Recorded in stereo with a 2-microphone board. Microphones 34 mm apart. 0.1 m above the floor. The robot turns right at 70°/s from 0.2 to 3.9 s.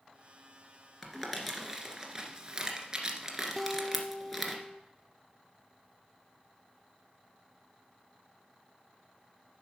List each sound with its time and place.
1.0 s crumpling: 5° left (ahead or behind), 1.5 m
3.6 s a guitar: 10° left (ahead or behind), 0.7 m; by 4.8 s 25° left (ahead or behind), 0.7 m